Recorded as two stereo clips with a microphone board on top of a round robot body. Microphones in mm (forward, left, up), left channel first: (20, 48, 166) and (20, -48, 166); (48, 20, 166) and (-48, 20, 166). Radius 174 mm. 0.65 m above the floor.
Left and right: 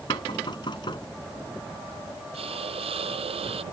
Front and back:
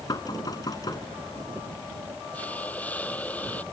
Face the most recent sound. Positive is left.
turn(degrees=-75)